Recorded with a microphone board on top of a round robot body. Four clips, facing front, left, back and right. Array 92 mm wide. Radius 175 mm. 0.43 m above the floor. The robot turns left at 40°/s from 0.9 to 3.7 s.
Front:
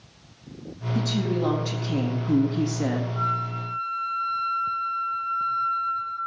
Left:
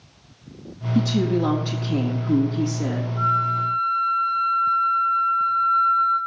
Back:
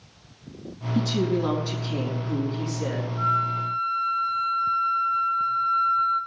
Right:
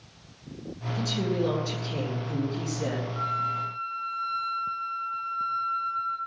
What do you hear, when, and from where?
0.9 s a woman speaking: 85° left, 4 m; by 3.1 s straight ahead, 4 m
3.2 s a flute: 60° right, 4.5 m; by 6.2 s 80° right, 4.5 m